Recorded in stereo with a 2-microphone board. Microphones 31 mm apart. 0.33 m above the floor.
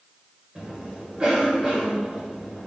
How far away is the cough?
About 1.1 m.